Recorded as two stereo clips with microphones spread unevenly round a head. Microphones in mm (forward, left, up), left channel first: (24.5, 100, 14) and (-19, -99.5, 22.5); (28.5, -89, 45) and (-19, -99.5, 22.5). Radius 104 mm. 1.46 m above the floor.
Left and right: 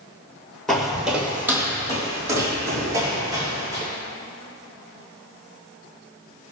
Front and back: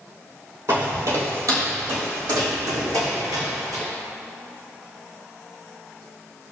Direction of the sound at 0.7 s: 170° left.